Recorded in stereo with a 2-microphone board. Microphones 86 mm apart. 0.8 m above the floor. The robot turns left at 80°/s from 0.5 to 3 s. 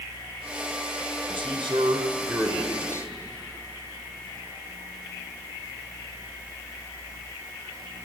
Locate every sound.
1.3 s a man speaking: 80° right, 2.5 m; by 3.1 s 140° left, 2.5 m